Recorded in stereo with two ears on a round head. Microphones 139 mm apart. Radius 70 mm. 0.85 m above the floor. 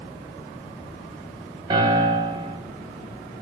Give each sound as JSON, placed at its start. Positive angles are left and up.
{"t": 1.7, "sound": "a piano", "side_deg": -25, "distance_m": 1.1}